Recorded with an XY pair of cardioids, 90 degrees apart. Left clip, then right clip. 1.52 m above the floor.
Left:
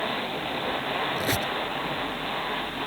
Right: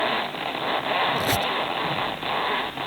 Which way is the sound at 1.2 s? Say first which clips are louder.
Right 4 dB; 15° right.